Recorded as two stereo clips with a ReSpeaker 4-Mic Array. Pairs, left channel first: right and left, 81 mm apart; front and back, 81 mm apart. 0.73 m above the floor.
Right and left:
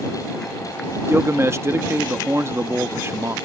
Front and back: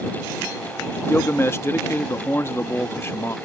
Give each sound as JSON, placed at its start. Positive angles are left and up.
{"t": 1.1, "sound": "a man speaking", "azimuth_deg": 45}